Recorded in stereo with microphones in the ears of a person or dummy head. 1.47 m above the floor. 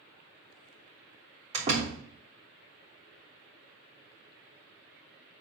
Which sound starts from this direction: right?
A door slam, at 1.5 s.